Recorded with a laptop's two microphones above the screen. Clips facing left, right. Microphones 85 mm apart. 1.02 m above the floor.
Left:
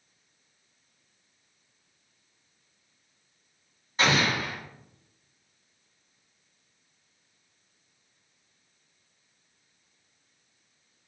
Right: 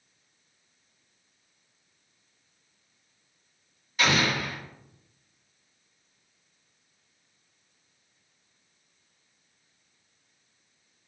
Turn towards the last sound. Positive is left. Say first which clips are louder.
# even
turn(degrees=35)  # may be behind; listen again after turning